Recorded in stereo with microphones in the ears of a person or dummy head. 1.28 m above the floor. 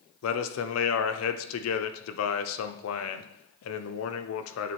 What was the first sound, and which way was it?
A man speaking, 85° left.